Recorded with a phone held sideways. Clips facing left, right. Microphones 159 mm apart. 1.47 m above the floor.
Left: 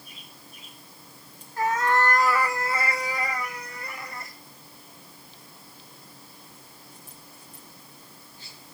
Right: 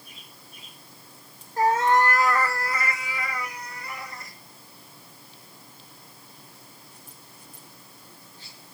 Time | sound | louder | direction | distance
1.6 | a cat meowing | right 3 dB | 40° right (ahead or behind) | 0.8 m